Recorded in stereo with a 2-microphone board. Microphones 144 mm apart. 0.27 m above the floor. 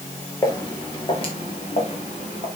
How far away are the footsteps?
About 3.5 m.